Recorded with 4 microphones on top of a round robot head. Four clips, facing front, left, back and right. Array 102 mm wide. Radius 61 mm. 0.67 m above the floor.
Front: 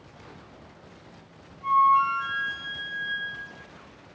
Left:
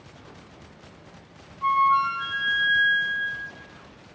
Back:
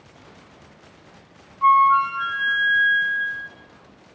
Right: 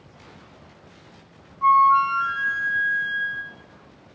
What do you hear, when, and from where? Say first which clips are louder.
1.6 s a flute: right 5 dB, back 5 dB; 155° right, 5 m